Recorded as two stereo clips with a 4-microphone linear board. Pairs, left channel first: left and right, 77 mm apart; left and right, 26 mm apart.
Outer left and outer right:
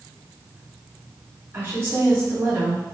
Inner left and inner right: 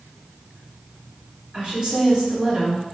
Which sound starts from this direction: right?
A woman speaking, at 1.5 s.